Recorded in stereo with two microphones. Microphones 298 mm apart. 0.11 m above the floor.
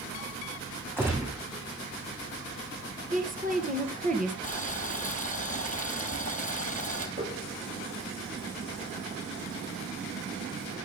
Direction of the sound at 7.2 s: 25° right (ahead or behind).